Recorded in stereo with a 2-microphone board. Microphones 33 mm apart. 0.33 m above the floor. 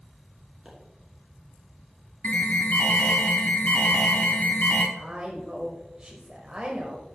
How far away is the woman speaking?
About 1.0 m.